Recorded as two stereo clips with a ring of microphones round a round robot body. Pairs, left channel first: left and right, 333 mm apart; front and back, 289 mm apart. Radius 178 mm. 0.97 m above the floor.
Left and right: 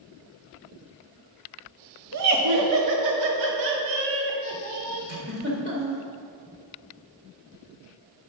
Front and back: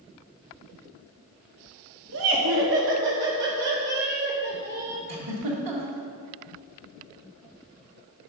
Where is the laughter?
130° right, 1.5 m; by 5.0 s 115° right, 3 m.